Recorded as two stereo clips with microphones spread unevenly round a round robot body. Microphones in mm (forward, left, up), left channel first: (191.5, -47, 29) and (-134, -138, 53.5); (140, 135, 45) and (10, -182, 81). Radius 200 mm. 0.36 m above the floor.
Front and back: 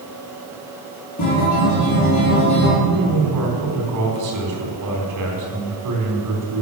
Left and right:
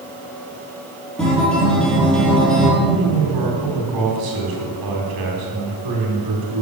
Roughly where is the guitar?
Ahead.